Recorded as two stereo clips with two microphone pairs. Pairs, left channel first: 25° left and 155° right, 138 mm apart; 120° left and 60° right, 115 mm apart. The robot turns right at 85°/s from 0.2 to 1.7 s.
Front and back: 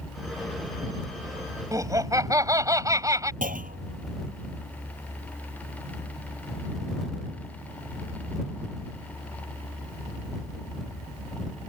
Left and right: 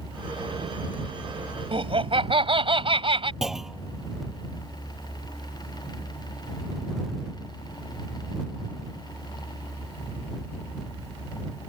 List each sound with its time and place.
1.7 s laughter: 90° right
3.4 s a clunk: 145° right